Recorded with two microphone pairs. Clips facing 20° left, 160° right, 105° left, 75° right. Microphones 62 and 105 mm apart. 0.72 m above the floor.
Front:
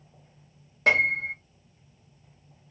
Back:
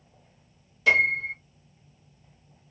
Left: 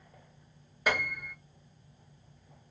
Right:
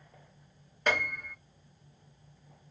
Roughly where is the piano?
Ahead left.